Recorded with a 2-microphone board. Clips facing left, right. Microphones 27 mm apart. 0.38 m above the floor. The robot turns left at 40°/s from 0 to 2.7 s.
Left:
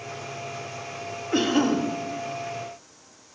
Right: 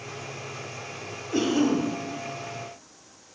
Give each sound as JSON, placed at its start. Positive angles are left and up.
{"t": 1.3, "sound": "a cough", "side_deg": 30, "distance_m": 2.0}